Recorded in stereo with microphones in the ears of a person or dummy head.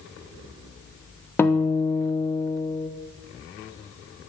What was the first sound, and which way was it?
A guitar, 15° left (ahead or behind).